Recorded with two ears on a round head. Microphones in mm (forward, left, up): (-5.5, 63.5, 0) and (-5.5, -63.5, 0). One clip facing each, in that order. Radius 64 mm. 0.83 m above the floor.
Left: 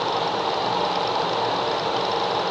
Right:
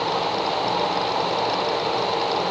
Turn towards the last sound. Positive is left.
No sound to turn to.